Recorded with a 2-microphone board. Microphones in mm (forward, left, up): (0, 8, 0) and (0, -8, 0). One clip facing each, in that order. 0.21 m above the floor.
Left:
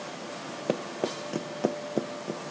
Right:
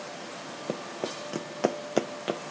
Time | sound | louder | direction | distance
0.7 | running footsteps | left 4 dB | 25° left (ahead or behind) | ?